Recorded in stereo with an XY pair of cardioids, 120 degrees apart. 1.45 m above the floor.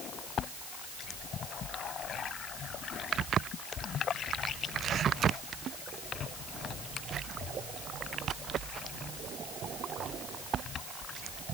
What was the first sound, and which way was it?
Only background noise.